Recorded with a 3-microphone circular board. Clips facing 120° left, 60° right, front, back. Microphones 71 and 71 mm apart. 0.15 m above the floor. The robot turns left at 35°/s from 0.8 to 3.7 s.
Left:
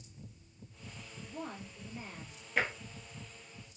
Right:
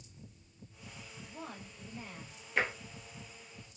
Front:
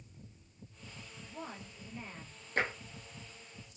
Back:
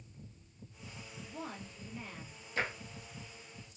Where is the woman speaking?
100° left, 2.5 m; by 2.4 s 55° left, 2.5 m.